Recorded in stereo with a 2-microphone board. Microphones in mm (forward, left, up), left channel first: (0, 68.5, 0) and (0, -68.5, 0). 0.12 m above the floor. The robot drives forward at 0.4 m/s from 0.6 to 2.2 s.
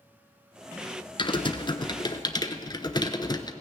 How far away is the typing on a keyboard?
About 0.7 m.